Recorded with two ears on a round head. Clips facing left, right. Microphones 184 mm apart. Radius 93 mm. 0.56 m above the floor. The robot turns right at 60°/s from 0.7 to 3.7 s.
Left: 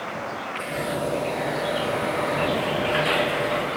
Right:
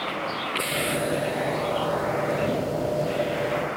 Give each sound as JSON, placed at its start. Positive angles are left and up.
{"t": 0.0, "sound": "a vehicle", "side_deg": -45}